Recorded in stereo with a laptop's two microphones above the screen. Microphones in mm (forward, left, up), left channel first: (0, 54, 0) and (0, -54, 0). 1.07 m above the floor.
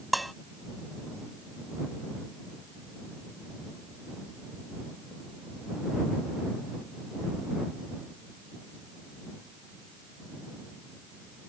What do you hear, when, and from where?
0.1 s dishes clattering: centre (ahead or behind)